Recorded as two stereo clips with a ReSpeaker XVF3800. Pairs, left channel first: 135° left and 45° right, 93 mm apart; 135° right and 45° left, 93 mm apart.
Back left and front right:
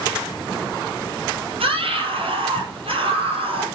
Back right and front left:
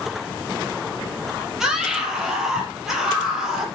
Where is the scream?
40° right, 4.5 m.